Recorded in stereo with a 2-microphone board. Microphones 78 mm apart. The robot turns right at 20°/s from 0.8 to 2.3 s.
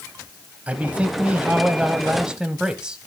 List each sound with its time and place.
0.7 s a man speaking: 15° right (ahead or behind), 0.9 m; by 3.0 s 10° right (ahead or behind), 0.9 m